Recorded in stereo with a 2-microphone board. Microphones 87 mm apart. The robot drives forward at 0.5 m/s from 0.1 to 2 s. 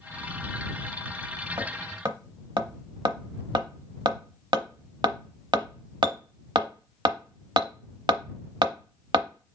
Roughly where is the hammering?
Right.